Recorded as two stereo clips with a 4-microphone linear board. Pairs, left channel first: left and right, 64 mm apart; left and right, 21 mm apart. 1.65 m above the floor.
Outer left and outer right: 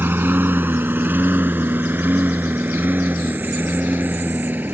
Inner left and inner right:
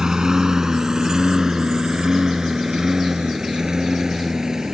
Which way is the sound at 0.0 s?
35° right (ahead or behind).